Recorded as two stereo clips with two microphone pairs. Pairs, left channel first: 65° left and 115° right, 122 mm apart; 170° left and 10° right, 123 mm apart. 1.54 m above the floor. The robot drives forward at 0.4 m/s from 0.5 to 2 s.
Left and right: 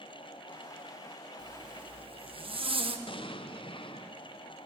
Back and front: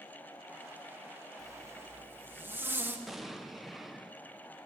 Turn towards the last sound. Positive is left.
turn(degrees=75)